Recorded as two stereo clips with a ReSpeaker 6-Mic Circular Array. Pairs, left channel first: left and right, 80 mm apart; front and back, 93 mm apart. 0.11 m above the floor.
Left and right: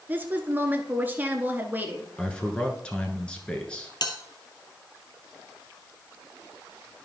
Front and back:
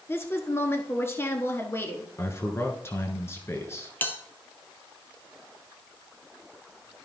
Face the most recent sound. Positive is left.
turn(degrees=70)